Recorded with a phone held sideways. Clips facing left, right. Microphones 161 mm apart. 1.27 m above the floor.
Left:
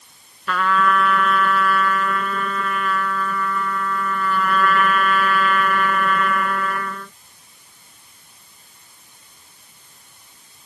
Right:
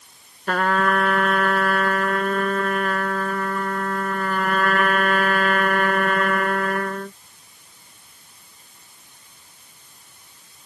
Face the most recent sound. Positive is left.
turn(degrees=-50)  # may be behind; listen again after turning